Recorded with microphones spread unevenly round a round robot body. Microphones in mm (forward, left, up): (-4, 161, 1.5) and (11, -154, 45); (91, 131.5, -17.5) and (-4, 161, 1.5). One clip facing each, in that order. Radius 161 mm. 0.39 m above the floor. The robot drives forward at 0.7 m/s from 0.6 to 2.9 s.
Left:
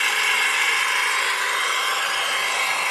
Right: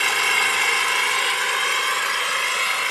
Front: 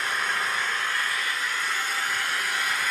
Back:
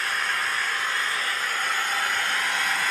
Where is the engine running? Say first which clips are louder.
Right 3 dB, even; 95° right, 1.0 m; by 2.9 s 160° right, 1.9 m.